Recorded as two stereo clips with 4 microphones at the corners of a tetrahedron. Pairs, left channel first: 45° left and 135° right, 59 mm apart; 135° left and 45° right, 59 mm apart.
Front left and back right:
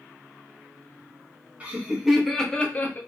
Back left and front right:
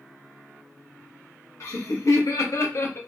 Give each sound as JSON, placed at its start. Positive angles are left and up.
{"t": 1.6, "sound": "laughter", "azimuth_deg": 160, "distance_m": 0.7}